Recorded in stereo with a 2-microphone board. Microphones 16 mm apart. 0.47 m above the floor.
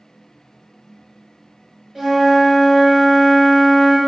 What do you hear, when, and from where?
1.9 s a flute: 35° right (ahead or behind), 0.8 m